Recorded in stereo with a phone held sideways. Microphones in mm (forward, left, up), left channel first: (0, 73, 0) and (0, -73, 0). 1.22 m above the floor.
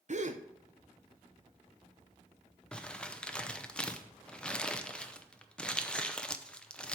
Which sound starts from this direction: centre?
Crumpling, at 2.7 s.